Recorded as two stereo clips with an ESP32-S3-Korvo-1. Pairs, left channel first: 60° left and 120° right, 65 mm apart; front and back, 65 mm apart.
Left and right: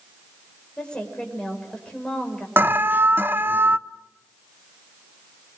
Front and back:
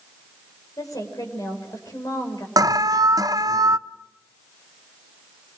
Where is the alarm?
175° right, 0.8 m.